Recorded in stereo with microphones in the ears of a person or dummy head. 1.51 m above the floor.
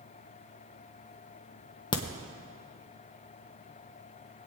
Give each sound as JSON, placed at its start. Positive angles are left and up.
{"t": 1.9, "sound": "a crack", "side_deg": 20, "distance_m": 0.8}